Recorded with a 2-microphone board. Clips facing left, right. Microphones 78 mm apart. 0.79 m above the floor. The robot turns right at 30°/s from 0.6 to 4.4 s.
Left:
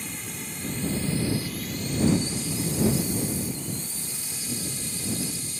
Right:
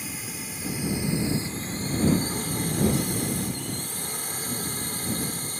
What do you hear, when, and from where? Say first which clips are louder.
0.0 s a drone: even; 175° right; by 5.6 s 60° right